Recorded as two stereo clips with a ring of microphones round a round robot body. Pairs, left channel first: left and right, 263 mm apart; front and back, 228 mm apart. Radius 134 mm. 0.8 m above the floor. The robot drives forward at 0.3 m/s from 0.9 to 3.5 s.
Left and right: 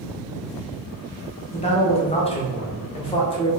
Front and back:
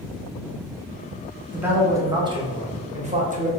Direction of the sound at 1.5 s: 105° left.